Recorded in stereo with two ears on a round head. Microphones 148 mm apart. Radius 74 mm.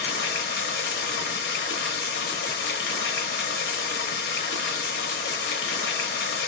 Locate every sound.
0.0 s running water: 65° left (ahead or behind), 0.9 m